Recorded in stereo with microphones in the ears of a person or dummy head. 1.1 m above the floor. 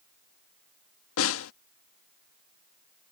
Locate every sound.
1.2 s a snare drum: 80° left